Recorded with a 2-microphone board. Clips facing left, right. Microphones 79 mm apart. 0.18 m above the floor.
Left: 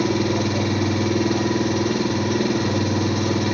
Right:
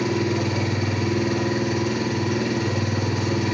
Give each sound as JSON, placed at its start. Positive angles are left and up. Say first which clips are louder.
{"t": 0.0, "sound": "an engine running", "louder": "left 2 dB", "side_deg": 65, "distance_m": 4.0}